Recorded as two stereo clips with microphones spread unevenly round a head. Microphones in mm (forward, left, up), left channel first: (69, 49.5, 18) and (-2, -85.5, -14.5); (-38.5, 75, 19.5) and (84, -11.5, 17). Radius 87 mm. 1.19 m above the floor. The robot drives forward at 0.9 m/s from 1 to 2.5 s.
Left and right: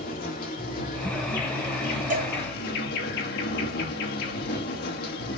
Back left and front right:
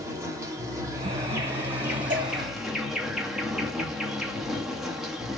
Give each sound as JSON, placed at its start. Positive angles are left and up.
{"t": 0.0, "sound": "an insect", "azimuth_deg": 35, "distance_m": 3.5}
{"t": 2.1, "sound": "a cowbell", "azimuth_deg": -85, "distance_m": 2.5}